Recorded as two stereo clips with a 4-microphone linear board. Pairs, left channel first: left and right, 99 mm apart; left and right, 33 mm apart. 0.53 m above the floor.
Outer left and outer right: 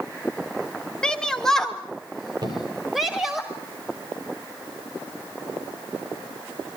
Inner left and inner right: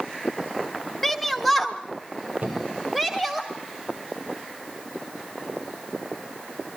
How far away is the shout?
About 1.0 m.